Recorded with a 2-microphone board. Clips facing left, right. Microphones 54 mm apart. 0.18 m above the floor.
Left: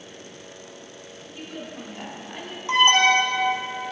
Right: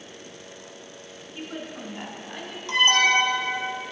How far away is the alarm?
About 0.9 m.